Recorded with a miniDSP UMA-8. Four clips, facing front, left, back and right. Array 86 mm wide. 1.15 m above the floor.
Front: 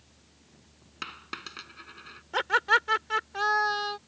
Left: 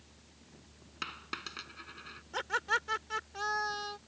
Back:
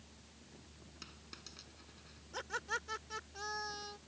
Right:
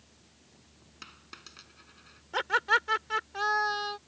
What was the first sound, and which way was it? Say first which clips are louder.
A dropped coin: left 9 dB, front 19 dB; 30° left.